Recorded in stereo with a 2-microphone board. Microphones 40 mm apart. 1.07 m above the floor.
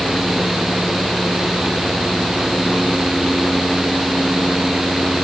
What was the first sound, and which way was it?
Only background noise.